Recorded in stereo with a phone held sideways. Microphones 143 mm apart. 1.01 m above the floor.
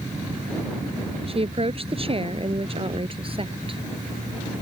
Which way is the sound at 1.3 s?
45° right (ahead or behind).